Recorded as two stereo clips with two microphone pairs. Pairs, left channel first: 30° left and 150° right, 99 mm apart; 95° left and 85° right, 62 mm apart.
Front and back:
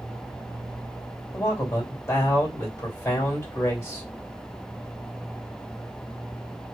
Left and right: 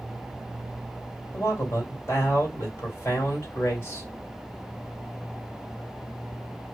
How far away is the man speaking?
About 2 m.